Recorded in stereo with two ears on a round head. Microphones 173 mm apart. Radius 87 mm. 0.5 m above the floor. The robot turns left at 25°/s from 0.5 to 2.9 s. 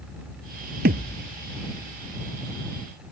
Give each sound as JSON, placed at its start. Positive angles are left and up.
{"t": 0.8, "sound": "a thud", "side_deg": -55}